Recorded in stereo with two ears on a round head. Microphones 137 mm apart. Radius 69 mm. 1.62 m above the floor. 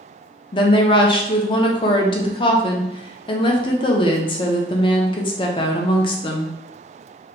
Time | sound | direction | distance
0.5 | a woman speaking | 35° left (ahead or behind) | 0.5 m